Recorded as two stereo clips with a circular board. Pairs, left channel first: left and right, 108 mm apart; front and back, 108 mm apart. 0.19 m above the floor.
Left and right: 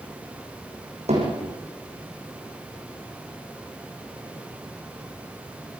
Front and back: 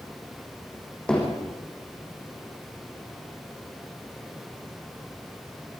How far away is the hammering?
About 7.5 m.